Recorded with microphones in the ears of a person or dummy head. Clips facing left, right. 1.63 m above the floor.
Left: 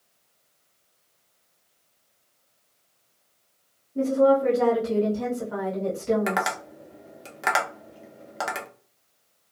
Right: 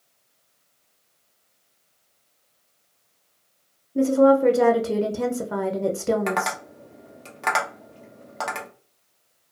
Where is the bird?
I don't hear a bird.